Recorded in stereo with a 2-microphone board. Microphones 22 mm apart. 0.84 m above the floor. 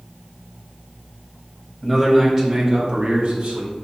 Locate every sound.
1.8 s a man speaking: 5° right (ahead or behind), 0.8 m; by 3.7 s 60° right (ahead or behind), 1.2 m